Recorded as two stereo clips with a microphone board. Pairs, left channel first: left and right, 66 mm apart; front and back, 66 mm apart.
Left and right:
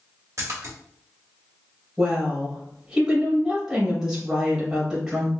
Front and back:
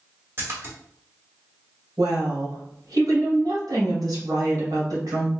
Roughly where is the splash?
Behind right.